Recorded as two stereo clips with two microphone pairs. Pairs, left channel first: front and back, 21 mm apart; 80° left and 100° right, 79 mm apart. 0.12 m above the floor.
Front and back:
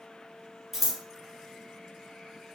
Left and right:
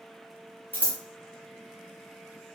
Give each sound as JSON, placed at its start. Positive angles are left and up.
{"t": 0.7, "sound": "scissors", "azimuth_deg": 110, "distance_m": 1.4}